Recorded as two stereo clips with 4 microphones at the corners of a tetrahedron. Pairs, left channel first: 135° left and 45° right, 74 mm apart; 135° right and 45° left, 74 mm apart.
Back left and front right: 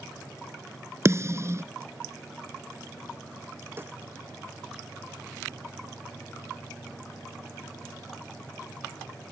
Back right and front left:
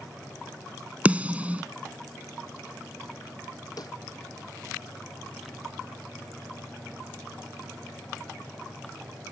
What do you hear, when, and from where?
1.1 s a snare drum: 15° right
3.8 s a snare drum: 105° right